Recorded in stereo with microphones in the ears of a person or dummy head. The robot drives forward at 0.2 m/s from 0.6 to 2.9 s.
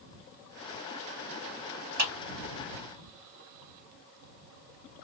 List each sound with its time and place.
2.0 s a clap: 50° right (ahead or behind), 2.5 m